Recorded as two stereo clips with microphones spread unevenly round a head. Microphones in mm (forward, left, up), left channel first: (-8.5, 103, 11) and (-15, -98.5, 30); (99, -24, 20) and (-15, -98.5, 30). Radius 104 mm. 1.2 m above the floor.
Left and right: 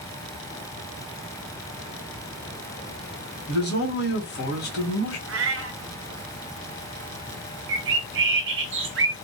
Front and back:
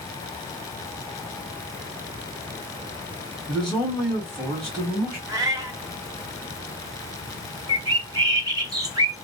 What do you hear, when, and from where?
3.5 s a man speaking: 120° left, 1.7 m
5.3 s a cat meowing: 90° right, 0.8 m
7.7 s a bird: 85° right, 0.7 m